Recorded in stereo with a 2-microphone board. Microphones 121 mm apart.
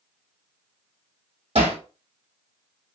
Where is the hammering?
60° right (ahead or behind), 2.5 m.